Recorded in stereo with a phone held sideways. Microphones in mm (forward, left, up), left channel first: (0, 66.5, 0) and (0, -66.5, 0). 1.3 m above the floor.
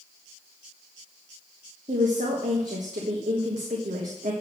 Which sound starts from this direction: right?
A woman speaking, at 1.9 s.